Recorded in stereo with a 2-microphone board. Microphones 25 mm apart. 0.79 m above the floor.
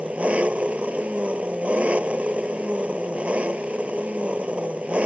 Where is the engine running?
70° right (ahead or behind).